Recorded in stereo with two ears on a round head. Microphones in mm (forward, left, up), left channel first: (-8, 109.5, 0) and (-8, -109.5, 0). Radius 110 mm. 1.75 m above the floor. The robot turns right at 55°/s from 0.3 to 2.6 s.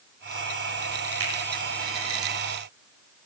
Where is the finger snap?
55° right (ahead or behind), 7.5 m; by 1.3 s 50° right (ahead or behind), 7.5 m.